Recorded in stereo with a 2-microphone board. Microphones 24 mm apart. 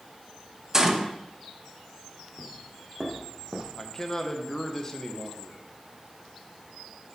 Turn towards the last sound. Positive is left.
turn(degrees=25)  # may be behind; listen again after turning